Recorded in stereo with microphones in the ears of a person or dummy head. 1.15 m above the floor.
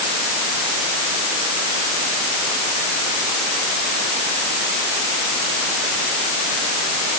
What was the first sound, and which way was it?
Only background noise.